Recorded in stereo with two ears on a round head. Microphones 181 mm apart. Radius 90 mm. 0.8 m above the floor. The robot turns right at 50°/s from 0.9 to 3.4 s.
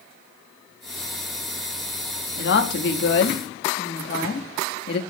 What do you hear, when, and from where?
2.4 s a woman speaking: 60° left, 1.2 m; by 5.0 s 115° left, 1.2 m